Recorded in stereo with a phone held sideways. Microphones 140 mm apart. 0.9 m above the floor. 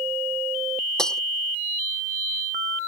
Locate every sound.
1.0 s breaking glass: 5° left (ahead or behind)